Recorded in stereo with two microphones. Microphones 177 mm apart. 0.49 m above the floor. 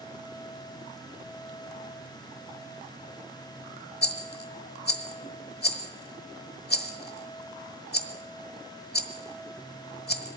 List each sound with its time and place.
4.0 s a rattle: 65° left (ahead or behind), 1.2 m